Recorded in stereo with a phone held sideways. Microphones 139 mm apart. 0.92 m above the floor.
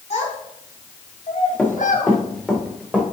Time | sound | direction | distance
0.1 | a child speaking | 55° left (ahead or behind) | 4 m
1.6 | running footsteps | 10° left (ahead or behind) | 4 m